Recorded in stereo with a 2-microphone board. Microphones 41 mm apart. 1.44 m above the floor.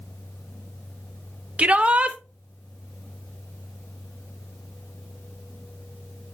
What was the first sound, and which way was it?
A shout, 30° right (ahead or behind).